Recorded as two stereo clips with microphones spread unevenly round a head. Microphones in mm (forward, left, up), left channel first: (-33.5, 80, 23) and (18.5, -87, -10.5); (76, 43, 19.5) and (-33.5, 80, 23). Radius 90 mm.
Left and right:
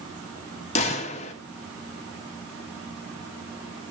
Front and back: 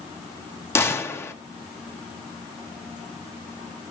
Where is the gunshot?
50° left, 0.9 m.